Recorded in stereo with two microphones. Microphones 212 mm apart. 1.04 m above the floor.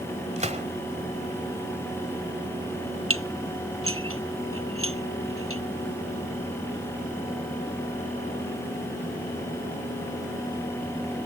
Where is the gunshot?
35° right (ahead or behind).